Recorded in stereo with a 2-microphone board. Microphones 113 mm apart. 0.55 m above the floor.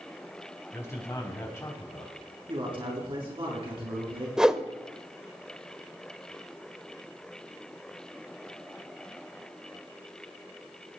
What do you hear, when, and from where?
0.7 s a man speaking: 25° left (ahead or behind), 4.5 m
2.5 s a man speaking: 50° right (ahead or behind), 5.5 m
4.4 s a whoosh: 5° right (ahead or behind), 0.7 m